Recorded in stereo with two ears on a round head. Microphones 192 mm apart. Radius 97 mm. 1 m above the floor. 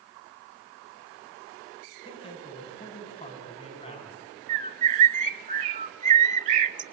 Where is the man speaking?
25° left (ahead or behind), 6 m.